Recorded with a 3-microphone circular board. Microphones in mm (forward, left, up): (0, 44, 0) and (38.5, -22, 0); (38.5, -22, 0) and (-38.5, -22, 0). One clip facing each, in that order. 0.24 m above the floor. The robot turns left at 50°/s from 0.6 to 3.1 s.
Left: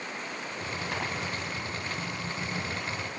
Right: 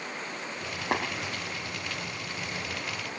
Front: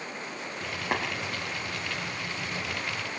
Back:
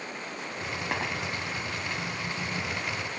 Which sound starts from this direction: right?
Tapping, at 0.9 s.